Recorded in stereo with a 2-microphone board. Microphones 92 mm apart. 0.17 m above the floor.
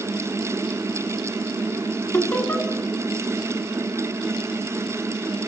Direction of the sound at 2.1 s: 15° left (ahead or behind).